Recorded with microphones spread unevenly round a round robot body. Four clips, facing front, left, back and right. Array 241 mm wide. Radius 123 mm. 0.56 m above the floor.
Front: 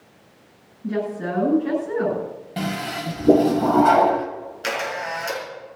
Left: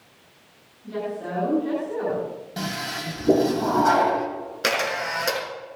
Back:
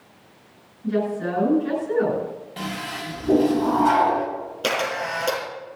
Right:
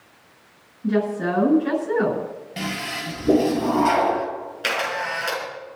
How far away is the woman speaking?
About 8 m.